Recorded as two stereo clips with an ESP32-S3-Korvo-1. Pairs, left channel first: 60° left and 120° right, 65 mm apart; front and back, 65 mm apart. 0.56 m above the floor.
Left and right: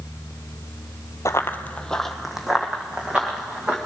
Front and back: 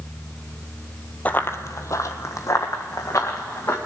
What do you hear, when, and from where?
1.2 s running footsteps: 55° left, 0.7 m; by 3.8 s 45° right, 3 m